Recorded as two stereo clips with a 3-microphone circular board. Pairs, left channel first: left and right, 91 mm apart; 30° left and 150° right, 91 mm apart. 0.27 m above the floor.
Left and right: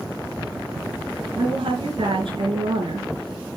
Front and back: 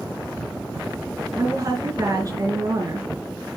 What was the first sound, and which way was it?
A woman speaking, 105° right.